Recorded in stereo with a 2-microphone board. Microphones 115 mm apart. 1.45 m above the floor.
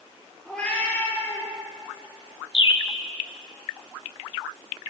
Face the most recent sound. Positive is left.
turn(degrees=40)  # may be behind; listen again after turning